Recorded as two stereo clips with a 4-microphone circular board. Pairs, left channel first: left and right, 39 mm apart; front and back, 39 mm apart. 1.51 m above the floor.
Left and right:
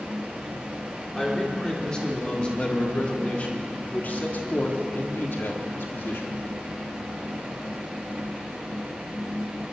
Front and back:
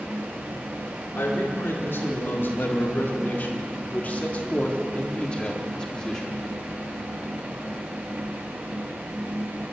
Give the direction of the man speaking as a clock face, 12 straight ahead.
12 o'clock.